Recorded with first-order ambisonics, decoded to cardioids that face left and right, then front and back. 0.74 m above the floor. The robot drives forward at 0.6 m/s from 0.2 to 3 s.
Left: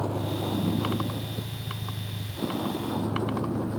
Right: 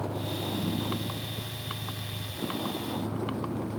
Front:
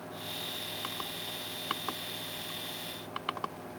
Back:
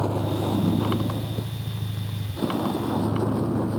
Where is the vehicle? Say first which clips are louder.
Left 3 dB, back 12 dB; 165° left; by 3.8 s 170° left.